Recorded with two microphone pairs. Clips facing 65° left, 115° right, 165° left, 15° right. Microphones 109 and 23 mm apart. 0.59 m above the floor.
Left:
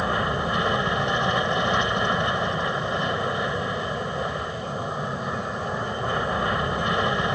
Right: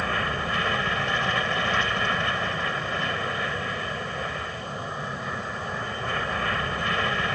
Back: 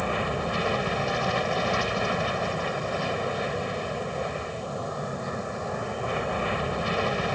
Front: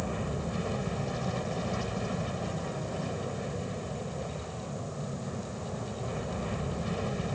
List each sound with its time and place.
0.0 s an aircraft: 135° left